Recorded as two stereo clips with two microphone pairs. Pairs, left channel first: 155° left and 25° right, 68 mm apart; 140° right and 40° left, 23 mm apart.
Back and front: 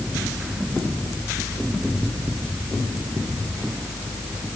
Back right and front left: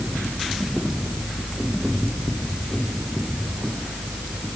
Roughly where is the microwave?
No microwave in this recording.